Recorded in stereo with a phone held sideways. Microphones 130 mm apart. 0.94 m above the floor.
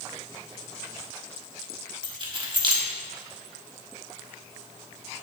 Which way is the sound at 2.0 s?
40° right (ahead or behind).